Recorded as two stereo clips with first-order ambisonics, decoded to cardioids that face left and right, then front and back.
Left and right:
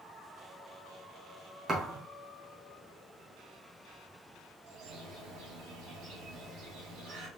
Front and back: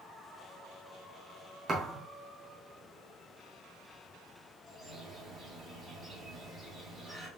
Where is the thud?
135° right, 1.2 m.